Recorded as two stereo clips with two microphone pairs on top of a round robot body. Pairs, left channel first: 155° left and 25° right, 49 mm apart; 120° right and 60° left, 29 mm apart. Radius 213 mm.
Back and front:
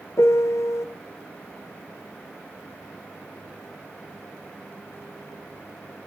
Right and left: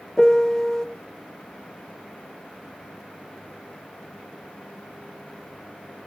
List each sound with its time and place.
0.2 s a piano: 175° left, 0.7 m